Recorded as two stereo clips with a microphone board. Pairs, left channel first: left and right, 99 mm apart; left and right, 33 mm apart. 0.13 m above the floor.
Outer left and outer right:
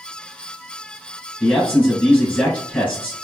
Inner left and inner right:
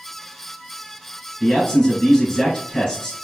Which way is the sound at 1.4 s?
15° left (ahead or behind).